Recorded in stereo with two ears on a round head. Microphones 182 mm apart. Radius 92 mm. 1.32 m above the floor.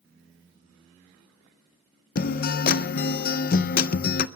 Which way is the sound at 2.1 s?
45° left (ahead or behind).